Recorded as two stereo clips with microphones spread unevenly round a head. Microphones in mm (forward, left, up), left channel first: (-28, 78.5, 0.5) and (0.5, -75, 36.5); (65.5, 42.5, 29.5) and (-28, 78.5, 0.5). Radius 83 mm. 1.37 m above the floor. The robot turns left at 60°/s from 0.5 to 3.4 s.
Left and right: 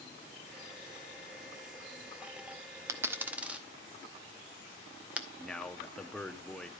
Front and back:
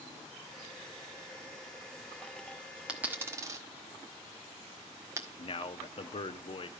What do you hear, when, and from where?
2.9 s a dropped coin: 95° right, 0.8 m; by 5.3 s 130° right, 0.8 m
5.4 s a man speaking: 15° left, 0.8 m